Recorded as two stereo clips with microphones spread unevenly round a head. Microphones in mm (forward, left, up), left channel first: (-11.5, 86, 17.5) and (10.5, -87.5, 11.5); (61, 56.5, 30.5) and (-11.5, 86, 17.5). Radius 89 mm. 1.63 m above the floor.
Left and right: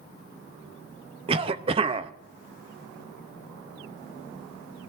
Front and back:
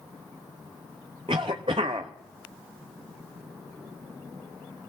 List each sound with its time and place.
1.3 s a cough: 140° right, 0.6 m